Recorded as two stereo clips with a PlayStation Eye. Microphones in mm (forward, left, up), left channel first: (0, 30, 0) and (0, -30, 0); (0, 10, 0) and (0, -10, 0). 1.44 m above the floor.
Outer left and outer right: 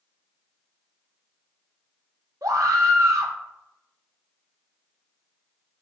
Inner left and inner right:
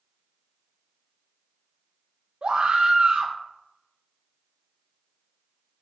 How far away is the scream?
About 1.3 m.